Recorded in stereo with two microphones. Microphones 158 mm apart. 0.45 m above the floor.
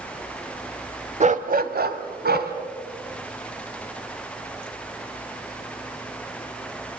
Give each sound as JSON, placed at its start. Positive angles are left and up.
{"t": 1.2, "sound": "a dog barking", "side_deg": -45, "distance_m": 1.0}